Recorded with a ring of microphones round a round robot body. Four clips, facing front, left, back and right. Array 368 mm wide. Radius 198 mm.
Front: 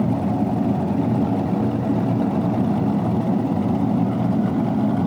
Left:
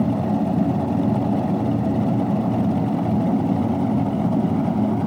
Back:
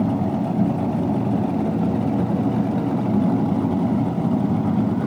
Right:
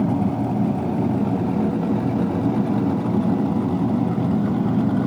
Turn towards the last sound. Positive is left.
No sound to turn to.